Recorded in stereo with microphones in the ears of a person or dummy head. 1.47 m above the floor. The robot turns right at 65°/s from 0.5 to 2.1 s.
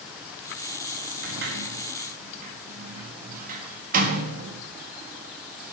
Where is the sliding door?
65° right (ahead or behind), 1.6 m; by 5.7 s 50° right (ahead or behind), 1.6 m.